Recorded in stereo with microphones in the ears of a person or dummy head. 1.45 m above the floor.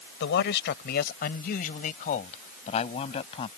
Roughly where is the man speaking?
Left.